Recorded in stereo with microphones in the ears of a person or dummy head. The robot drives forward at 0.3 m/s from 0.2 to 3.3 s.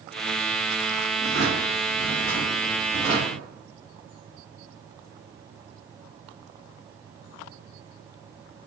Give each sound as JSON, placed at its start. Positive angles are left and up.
{"t": 1.2, "sound": "a drawer", "side_deg": 15, "distance_m": 1.1}